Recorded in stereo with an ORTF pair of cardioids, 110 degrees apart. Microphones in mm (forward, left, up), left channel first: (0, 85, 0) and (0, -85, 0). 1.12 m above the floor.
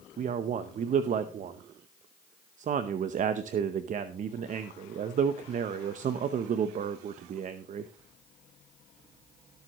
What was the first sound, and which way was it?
A man speaking, 45° right.